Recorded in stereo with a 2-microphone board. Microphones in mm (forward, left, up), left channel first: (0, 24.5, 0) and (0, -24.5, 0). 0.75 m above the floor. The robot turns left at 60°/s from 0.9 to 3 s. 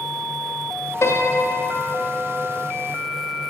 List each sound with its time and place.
1.0 s a piano: 115° left, 0.6 m; by 2.5 s 30° left, 0.6 m